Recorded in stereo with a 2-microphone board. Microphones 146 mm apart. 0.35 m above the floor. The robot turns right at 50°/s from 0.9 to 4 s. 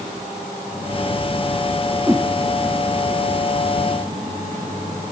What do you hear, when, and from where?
2.1 s a whoosh: 10° right (ahead or behind); by 2.3 s centre (ahead or behind)